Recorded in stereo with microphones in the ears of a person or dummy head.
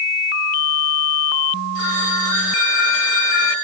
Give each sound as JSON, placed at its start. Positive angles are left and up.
{"t": 1.8, "sound": "a phone ringing", "side_deg": 70, "distance_m": 10.0}